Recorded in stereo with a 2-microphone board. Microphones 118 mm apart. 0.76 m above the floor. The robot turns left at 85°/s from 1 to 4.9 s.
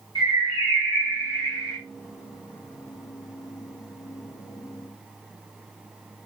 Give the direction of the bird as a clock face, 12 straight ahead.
2 o'clock.